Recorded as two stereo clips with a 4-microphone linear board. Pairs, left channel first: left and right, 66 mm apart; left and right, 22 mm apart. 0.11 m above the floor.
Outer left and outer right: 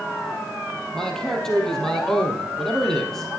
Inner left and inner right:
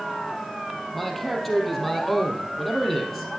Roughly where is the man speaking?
Centre.